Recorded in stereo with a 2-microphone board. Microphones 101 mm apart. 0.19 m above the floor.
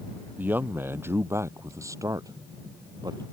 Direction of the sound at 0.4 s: 15° right (ahead or behind).